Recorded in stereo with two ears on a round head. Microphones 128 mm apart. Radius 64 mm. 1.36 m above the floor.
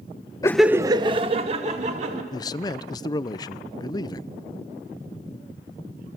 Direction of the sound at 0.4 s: 25° left (ahead or behind).